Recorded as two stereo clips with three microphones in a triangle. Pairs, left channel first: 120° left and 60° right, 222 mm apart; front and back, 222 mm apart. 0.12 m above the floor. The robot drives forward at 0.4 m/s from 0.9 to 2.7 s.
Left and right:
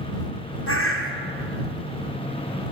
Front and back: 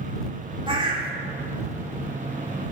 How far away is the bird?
About 1.3 m.